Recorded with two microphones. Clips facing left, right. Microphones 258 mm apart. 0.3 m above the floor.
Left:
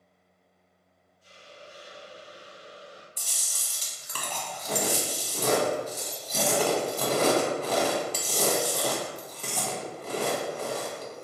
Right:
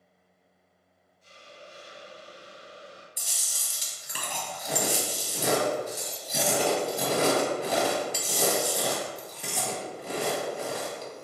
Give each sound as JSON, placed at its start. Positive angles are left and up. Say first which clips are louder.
{"t": 1.2, "sound": "a hiss", "louder": "even", "side_deg": 10, "distance_m": 0.9}
{"t": 3.2, "sound": "chewing", "louder": "even", "side_deg": -15, "distance_m": 0.7}